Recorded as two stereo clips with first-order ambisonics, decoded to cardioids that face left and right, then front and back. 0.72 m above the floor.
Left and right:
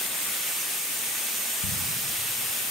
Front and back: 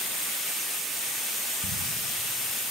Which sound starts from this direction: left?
Ticking, at 1.6 s.